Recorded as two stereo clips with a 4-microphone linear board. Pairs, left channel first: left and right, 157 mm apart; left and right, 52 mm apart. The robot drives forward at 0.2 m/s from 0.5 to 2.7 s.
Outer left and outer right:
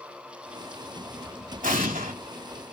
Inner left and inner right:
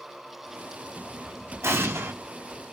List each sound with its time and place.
1.6 s an explosion: 60° right (ahead or behind), 1.4 m; by 2.1 s 55° right (ahead or behind), 1.5 m